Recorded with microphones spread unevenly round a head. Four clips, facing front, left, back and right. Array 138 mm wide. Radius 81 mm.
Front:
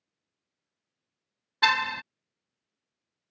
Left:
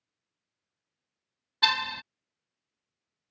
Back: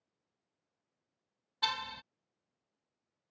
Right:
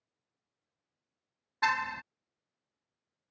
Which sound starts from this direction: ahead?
A car horn, at 1.6 s.